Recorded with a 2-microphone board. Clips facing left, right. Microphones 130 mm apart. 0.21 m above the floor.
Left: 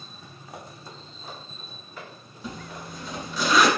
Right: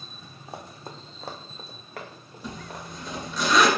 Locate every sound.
0.5 s running footsteps: 30° right (ahead or behind), 0.8 m; by 3.4 s 50° right (ahead or behind), 2 m
2.4 s a zipper: centre (ahead or behind), 1.2 m